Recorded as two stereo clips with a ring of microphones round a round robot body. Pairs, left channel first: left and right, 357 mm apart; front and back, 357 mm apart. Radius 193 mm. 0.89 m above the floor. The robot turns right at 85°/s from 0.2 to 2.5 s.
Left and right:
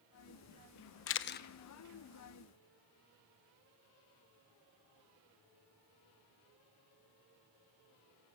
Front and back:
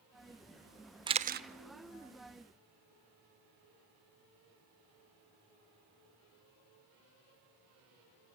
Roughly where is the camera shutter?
Left.